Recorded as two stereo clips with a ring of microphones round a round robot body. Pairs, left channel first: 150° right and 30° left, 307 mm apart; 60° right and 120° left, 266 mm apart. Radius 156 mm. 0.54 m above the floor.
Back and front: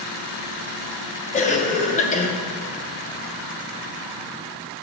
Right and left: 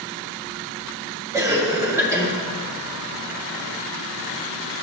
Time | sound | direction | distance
1.3 | a cough | 175° right | 0.7 m